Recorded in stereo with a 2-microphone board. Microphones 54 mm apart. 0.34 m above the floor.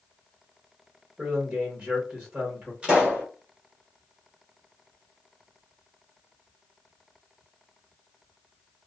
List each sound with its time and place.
1.2 s a man speaking: 20° right (ahead or behind), 1.3 m
2.8 s a pop: 15° right (ahead or behind), 1.5 m